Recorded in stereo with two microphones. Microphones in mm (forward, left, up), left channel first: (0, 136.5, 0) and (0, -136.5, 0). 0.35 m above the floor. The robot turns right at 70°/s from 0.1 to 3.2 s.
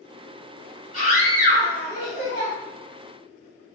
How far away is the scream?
About 1.7 m.